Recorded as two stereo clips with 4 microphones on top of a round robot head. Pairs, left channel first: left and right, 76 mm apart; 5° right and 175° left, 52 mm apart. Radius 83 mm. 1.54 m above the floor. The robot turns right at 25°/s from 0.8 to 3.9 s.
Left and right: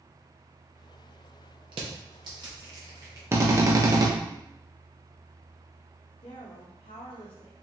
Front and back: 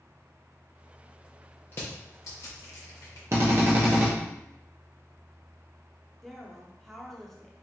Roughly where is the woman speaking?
Left.